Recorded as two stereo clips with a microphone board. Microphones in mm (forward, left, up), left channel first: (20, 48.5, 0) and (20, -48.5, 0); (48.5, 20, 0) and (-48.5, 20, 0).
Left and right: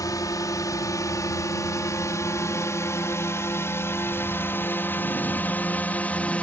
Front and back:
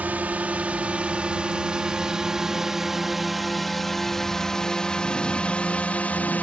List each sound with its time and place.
0.0 s a drone: 115° left; by 6.4 s 40° left